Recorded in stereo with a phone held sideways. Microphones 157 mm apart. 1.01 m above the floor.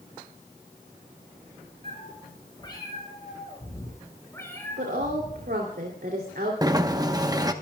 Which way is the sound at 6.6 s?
25° right (ahead or behind).